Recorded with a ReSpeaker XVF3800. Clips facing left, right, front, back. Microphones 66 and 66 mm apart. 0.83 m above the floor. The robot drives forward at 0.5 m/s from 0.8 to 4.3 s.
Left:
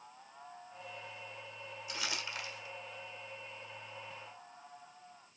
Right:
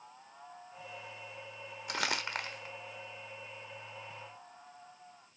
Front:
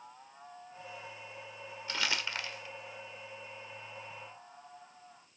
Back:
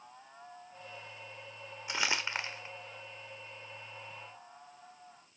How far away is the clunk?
No clunk in this recording.